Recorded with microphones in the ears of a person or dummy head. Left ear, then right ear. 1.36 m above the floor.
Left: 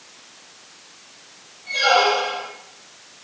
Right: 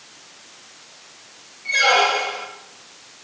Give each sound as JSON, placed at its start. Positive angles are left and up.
{"t": 1.6, "sound": "a squeak", "side_deg": -55, "distance_m": 6.5}